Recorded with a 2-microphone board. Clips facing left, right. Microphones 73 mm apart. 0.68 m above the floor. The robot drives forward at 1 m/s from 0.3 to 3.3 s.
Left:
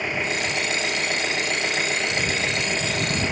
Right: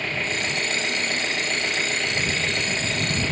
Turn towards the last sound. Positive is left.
turn(degrees=15)  # may be behind; listen again after turning